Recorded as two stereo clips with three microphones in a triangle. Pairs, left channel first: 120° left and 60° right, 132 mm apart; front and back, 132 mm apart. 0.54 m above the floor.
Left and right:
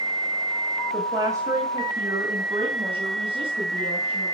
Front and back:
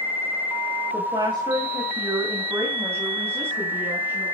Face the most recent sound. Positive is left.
turn(degrees=-100)